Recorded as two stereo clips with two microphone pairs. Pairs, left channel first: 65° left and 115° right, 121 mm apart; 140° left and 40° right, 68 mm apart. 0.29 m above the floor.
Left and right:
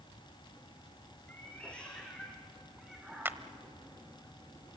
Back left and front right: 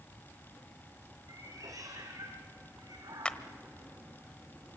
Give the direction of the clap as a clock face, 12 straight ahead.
5 o'clock.